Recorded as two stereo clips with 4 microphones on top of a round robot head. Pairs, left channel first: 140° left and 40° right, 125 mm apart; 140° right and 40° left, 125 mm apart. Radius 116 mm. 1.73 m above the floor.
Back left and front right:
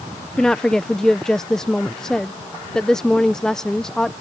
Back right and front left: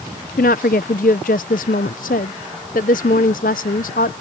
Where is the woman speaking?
135° right.